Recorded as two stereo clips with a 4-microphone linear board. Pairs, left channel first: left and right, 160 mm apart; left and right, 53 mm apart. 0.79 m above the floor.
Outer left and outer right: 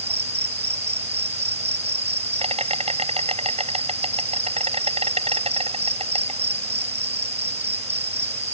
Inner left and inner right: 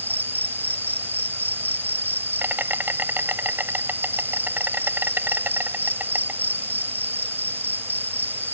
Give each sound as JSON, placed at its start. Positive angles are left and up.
{"t": 0.0, "sound": "an insect", "side_deg": -40}